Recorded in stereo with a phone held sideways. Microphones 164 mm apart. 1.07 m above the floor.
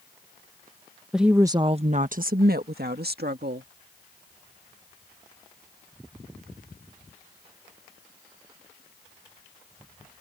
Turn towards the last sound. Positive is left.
turn(degrees=-80)